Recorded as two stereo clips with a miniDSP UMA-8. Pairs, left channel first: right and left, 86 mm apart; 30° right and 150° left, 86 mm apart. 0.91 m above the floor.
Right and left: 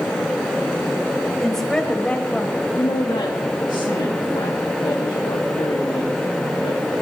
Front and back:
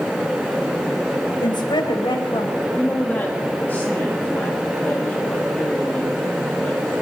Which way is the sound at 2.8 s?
95° right.